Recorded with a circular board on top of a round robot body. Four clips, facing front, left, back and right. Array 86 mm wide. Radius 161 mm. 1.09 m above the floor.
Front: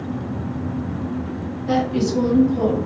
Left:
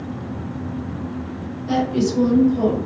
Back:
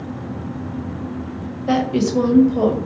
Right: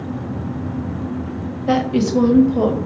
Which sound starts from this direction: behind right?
A woman speaking, at 1.7 s.